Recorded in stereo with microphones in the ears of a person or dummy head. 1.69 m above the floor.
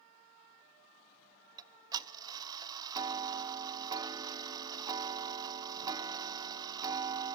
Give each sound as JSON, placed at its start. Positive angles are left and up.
{"t": 1.6, "sound": "ticking", "side_deg": -25, "distance_m": 0.8}